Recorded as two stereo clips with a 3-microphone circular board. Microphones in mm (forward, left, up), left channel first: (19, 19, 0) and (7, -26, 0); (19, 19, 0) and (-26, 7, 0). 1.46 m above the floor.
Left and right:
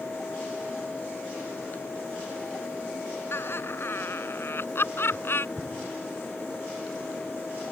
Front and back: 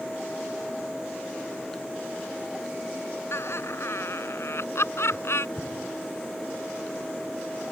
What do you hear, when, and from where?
3.3 s laughter: 40° left
5.6 s an explosion: 20° right